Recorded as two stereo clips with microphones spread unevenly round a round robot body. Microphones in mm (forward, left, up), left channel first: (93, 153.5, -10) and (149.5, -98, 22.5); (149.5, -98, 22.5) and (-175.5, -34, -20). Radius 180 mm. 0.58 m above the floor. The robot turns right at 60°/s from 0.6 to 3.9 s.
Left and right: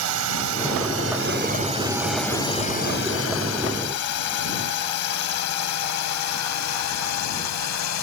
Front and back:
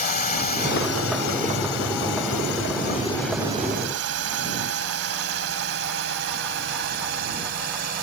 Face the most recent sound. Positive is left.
turn(degrees=105)